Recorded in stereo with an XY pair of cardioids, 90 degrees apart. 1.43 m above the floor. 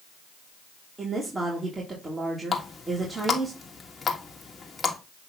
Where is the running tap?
35° left, 1.6 m.